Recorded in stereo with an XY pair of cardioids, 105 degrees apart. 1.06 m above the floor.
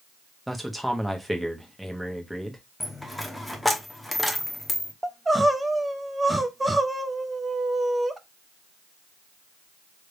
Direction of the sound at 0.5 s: 5° right.